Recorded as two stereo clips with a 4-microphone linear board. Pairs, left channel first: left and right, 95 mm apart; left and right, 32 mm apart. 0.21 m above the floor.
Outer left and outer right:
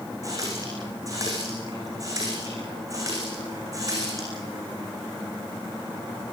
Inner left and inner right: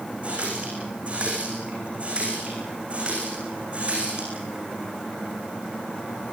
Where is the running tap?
35° right (ahead or behind), 9 m.